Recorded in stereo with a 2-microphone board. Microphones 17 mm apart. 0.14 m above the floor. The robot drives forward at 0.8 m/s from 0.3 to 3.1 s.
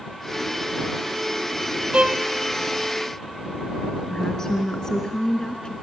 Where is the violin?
75° right (ahead or behind), 1.3 m.